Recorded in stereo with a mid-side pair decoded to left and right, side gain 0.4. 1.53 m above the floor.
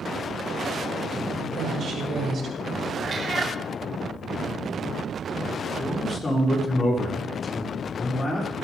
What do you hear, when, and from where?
1.4 s a woman speaking: 65° right, 5.5 m; by 2.9 s 50° right, 6.5 m
3.0 s a cat meowing: 40° right, 2.5 m
5.8 s a man speaking: 35° left, 6.5 m